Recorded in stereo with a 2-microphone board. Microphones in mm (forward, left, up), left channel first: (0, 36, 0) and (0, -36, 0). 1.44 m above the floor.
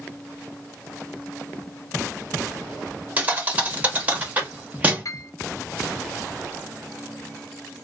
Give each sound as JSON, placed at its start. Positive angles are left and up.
{"t": 3.2, "sound": "a thud", "side_deg": -20, "distance_m": 0.8}
{"t": 5.0, "sound": "a piano", "side_deg": 50, "distance_m": 0.6}